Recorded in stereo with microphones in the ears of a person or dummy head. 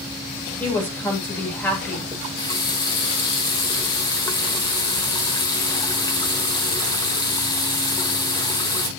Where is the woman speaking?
5° left (ahead or behind), 3 m.